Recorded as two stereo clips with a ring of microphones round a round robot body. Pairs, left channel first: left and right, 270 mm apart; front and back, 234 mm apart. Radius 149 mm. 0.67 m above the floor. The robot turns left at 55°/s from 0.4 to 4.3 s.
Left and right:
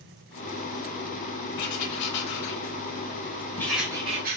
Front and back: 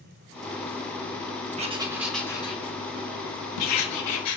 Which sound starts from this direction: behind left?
Writing, at 1.6 s.